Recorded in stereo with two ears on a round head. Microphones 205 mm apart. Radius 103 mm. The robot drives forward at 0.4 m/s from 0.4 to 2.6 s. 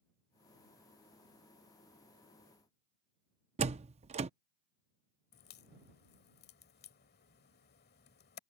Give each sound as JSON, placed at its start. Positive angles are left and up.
{"t": 3.6, "sound": "a door slam", "side_deg": -30}
{"t": 5.3, "sound": "a crack", "side_deg": 45}